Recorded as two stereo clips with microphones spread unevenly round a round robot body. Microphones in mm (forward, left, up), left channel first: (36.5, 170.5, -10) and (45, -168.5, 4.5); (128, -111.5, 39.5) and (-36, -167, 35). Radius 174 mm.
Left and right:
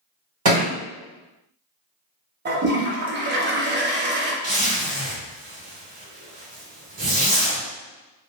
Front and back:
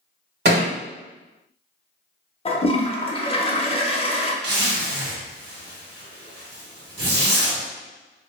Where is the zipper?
155° right, 1.1 m.